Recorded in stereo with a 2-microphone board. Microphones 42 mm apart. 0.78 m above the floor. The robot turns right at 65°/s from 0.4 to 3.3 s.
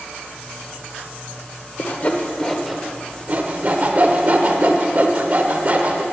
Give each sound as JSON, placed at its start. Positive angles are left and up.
{"t": 1.8, "sound": "sawing", "side_deg": 50, "distance_m": 0.7}